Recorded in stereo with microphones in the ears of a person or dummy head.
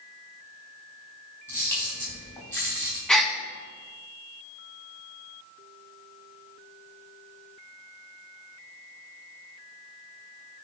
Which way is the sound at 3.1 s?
5° left (ahead or behind).